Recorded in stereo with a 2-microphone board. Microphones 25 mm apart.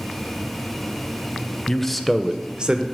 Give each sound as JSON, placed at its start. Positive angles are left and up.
{"t": 1.7, "sound": "a man speaking", "side_deg": 15, "distance_m": 0.6}